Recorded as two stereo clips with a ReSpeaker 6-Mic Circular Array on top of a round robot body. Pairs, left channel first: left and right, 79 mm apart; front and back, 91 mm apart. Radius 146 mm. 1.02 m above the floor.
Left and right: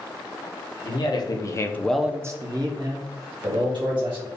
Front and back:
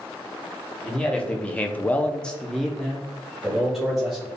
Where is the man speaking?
80° left, 1.0 m; by 4.3 s 95° right, 1.8 m.